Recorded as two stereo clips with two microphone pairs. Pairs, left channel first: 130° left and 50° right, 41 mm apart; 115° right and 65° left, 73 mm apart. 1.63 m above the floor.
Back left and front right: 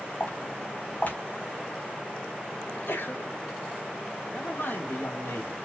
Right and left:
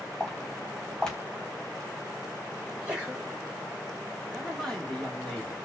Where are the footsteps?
165° left, 3.5 m.